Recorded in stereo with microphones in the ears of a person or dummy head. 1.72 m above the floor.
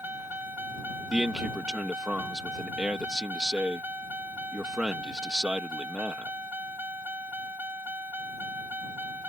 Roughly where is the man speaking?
Centre.